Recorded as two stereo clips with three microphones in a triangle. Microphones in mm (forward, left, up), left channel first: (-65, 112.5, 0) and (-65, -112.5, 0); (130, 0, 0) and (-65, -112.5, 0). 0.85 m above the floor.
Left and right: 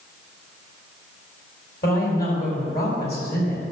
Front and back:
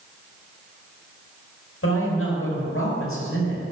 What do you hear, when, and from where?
1.8 s a woman speaking: 45° left, 4.5 m